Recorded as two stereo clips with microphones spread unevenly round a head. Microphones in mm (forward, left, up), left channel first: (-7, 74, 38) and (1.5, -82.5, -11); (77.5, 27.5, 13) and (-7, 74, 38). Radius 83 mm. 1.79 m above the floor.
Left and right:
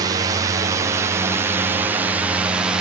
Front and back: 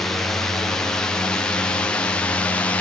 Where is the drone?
95° right; by 2.8 s 45° right.